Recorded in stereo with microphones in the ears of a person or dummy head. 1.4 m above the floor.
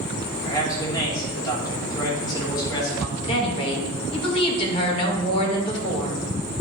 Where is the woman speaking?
30° left (ahead or behind), 1.9 m.